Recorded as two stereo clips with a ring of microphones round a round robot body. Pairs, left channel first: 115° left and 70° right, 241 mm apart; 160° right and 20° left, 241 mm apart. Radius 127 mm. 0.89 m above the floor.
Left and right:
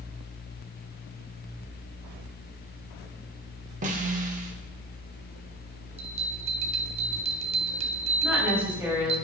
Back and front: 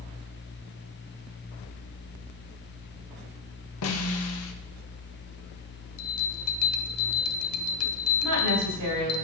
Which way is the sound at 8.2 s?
15° left.